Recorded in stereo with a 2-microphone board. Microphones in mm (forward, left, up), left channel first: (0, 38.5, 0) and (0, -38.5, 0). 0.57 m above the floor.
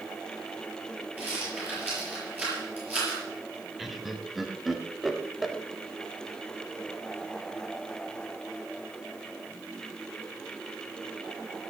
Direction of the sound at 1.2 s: 20° right (ahead or behind).